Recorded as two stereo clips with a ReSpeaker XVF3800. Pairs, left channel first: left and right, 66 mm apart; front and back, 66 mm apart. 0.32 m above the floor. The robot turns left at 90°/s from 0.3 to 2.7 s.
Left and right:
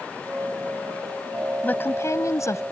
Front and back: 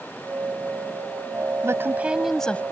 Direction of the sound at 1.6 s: 150° left.